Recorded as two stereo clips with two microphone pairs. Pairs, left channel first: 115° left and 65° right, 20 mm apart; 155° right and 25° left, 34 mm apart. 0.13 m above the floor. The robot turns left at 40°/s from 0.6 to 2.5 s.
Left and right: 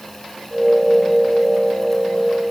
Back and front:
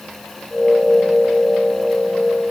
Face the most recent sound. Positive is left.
No sound to turn to.